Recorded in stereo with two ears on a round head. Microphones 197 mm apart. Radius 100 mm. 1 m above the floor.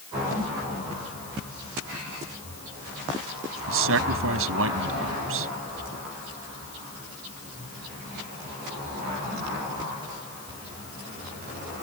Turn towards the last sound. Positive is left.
turn(degrees=-70)  # may be behind; listen again after turning